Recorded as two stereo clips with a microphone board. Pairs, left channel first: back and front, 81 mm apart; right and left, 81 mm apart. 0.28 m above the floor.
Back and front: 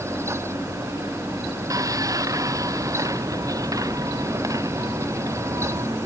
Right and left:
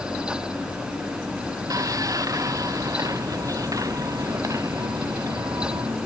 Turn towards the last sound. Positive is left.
turn(degrees=45)